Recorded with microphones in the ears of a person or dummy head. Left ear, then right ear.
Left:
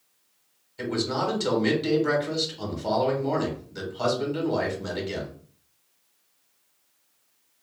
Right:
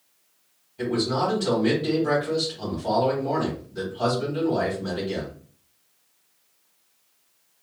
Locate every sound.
0.8 s a man speaking: 50° left (ahead or behind), 2 m